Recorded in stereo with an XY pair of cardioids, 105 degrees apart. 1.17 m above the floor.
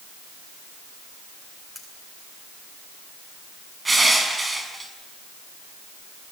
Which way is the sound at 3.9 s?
20° right.